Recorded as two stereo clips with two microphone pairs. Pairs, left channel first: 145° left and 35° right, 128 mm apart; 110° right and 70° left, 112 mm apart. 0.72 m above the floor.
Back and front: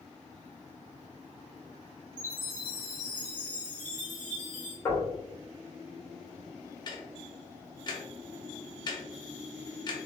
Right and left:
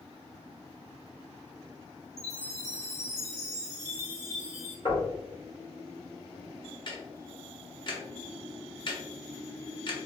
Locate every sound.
2.2 s a chime: 110° right, 1.8 m
4.8 s knocking: 150° right, 1.4 m
6.9 s ticking: 160° right, 0.7 m